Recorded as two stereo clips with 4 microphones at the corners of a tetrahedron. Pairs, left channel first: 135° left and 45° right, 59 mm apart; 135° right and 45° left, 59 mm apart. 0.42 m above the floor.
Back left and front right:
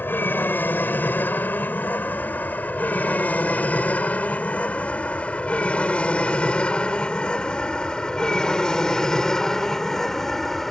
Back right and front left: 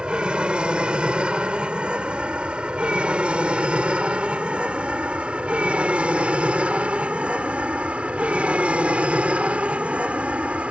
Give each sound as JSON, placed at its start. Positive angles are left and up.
{"t": 0.0, "sound": "an aircraft", "azimuth_deg": 110}